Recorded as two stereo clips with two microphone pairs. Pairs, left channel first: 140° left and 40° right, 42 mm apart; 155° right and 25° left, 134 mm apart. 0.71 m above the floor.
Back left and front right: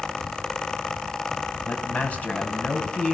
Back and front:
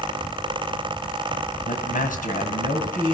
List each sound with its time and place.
1.6 s a man speaking: 165° right, 5 m